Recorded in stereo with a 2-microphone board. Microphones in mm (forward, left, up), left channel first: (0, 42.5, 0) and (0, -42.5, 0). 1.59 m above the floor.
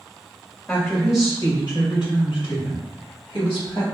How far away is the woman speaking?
About 1.9 m.